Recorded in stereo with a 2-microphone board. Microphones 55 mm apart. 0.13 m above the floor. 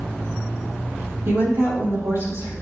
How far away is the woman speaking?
About 4.5 m.